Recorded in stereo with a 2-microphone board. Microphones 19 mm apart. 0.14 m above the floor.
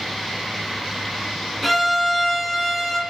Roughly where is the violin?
Centre.